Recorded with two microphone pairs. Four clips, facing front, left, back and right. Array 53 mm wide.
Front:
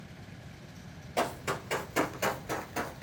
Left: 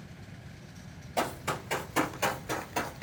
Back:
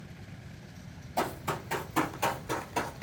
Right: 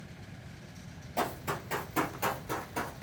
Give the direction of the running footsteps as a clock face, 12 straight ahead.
11 o'clock.